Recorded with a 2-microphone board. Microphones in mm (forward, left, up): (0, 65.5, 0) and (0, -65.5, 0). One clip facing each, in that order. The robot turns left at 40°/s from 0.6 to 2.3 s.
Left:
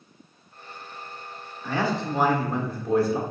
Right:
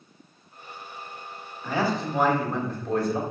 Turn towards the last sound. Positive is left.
turn(degrees=5)  # may be behind; listen again after turning